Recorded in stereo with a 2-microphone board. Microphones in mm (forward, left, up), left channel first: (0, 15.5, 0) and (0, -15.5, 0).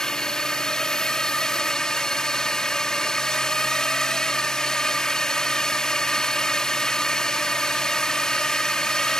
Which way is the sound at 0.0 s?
20° left (ahead or behind).